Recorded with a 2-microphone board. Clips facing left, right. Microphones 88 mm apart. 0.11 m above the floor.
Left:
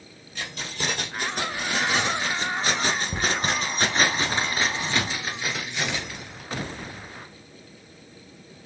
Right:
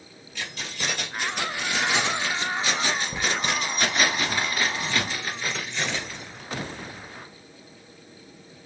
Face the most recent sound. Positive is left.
turn(degrees=5)  # may be behind; listen again after turning